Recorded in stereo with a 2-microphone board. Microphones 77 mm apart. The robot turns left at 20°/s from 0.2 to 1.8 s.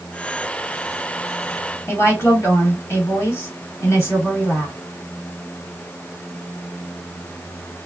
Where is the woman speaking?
40° left (ahead or behind), 1.5 m.